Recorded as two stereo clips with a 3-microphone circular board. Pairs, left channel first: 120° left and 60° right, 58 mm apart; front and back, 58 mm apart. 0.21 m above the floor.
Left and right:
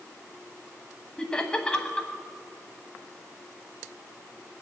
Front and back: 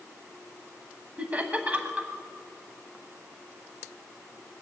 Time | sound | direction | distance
1.2 | laughter | 170° left | 1.0 m